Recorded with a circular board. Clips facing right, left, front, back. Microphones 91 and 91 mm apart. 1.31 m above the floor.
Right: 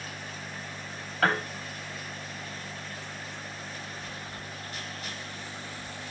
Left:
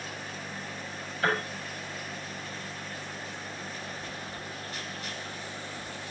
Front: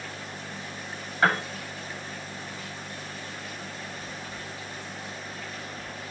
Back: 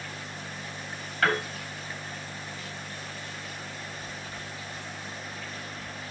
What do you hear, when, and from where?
1.2 s a piano: 70° right, 2.5 m